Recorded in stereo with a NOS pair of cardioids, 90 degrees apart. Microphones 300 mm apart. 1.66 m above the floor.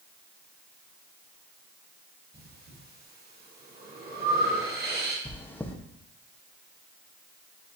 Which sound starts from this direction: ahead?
Chewing, at 5.2 s.